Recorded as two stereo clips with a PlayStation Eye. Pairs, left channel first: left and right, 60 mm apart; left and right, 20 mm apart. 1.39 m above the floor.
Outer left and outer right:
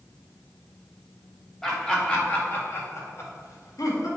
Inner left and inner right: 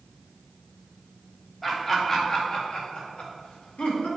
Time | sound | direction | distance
1.6 | laughter | 10° left (ahead or behind) | 2.5 m